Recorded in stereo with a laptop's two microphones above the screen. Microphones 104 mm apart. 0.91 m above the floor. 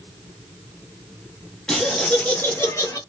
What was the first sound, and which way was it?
Laughter, 5° left (ahead or behind).